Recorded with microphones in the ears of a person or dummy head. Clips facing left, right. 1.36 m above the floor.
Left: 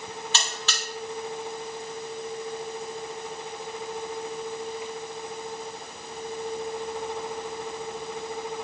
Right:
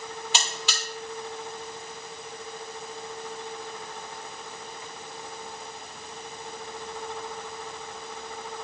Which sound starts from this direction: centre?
A buzzer, at 0.3 s.